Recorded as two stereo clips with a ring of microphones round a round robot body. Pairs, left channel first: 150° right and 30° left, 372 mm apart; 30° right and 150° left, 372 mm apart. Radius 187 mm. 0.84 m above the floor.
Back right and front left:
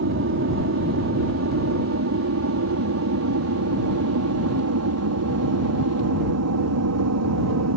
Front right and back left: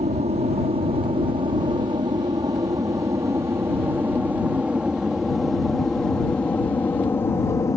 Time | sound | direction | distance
0.0 | an aircraft | 80° left | ?